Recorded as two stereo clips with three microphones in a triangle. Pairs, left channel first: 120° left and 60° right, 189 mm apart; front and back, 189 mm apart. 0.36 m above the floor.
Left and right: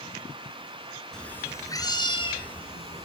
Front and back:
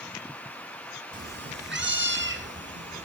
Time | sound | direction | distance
1.1 | a cat meowing | 155° right | 1.0 m